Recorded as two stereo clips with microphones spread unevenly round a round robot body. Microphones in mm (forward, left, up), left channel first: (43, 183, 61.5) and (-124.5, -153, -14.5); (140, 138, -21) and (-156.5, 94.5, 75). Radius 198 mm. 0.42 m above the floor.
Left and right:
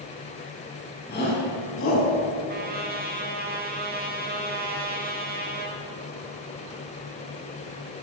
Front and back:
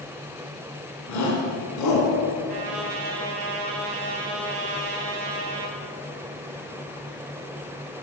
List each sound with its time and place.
1.1 s a shout: 5° right, 5 m; by 2.1 s 5° left, 5 m
2.5 s a trumpet: straight behind, 3.5 m